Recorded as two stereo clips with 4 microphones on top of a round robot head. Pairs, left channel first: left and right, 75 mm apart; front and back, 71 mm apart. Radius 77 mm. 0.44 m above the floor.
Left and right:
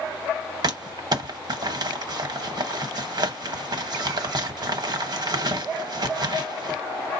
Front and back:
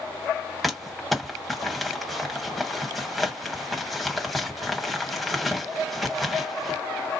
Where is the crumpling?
90° right, 1.0 m.